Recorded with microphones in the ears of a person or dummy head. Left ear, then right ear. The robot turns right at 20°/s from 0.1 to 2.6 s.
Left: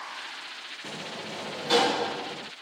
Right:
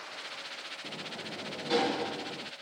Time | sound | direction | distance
0.8 | a sliding door | 120° left | ?